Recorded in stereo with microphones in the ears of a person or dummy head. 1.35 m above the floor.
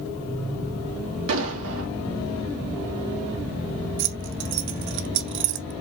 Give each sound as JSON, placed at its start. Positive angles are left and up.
{"t": 1.3, "sound": "an explosion", "side_deg": -80, "distance_m": 2.0}
{"t": 4.0, "sound": "keys jangling", "side_deg": -55, "distance_m": 1.0}